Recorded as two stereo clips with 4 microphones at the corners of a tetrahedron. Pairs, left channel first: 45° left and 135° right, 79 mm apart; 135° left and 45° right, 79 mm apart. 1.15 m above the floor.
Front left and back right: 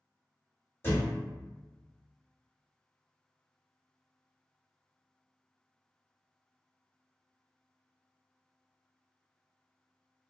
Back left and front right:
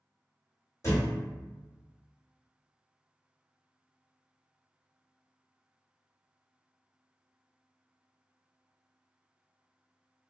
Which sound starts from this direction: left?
A thud, at 0.8 s.